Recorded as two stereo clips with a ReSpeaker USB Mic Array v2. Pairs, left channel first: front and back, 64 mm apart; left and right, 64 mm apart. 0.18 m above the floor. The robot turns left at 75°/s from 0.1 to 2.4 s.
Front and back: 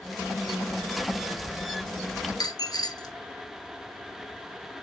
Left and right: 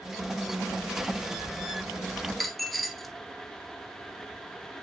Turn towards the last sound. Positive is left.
turn(degrees=0)